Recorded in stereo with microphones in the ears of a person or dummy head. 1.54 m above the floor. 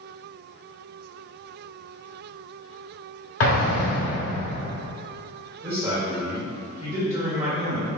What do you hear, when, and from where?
3.4 s an explosion: 80° left, 1.1 m
5.6 s a man speaking: 10° right (ahead or behind), 1.7 m